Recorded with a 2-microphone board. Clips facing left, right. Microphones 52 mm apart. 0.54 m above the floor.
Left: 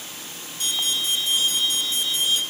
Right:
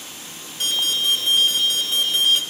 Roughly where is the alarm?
Right.